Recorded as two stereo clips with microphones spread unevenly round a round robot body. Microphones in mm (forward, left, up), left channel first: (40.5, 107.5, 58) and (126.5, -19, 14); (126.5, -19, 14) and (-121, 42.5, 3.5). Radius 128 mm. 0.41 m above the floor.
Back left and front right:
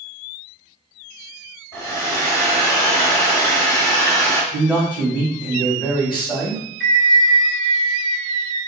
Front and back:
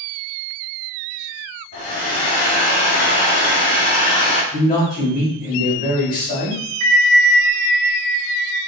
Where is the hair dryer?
50° left, 1.7 m.